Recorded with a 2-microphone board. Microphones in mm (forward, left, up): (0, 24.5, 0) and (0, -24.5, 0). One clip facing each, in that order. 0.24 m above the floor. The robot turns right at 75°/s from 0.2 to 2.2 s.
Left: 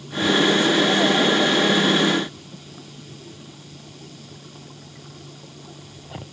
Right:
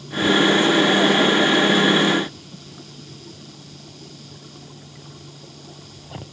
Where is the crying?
No crying in this recording.